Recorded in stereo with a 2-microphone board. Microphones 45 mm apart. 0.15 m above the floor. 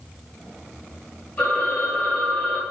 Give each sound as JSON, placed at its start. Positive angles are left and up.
{"t": 1.4, "sound": "a phone ringing", "side_deg": 50, "distance_m": 1.8}